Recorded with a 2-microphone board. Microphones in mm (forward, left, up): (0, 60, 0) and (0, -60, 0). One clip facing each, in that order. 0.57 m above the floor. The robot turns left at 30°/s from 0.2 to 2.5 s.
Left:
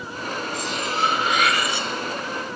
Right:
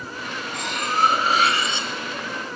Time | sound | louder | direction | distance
0.5 | cutlery clinking | right 4 dB | 120° right | 2.5 m